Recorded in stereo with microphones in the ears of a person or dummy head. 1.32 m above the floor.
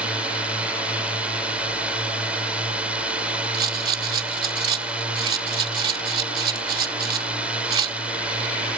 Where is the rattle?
30° right (ahead or behind).